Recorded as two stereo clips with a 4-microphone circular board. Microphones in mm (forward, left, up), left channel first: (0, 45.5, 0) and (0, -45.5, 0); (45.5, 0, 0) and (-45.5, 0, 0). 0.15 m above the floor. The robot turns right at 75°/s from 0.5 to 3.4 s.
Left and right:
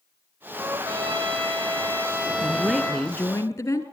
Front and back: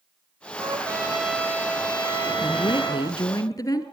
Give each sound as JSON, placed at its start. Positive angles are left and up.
{"t": 0.6, "sound": "a trumpet", "azimuth_deg": -140, "distance_m": 6.0}
{"t": 2.4, "sound": "a woman speaking", "azimuth_deg": -30, "distance_m": 2.5}